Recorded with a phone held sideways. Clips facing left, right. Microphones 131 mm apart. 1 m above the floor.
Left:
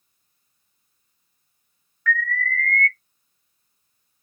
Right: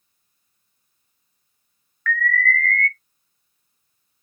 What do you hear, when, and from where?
2.1 s an alarm: 15° left (ahead or behind), 2.5 m